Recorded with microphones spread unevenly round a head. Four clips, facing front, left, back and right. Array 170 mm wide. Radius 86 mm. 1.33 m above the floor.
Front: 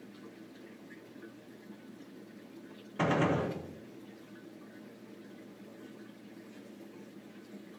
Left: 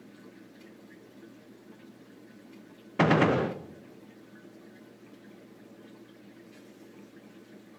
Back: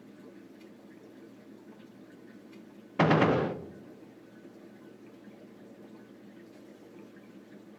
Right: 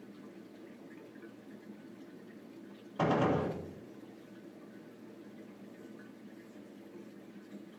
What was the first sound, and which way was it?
A gunshot, 100° left.